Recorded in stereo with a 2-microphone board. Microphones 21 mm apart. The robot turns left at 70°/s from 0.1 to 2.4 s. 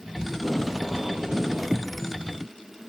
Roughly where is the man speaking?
No man speaking in this recording.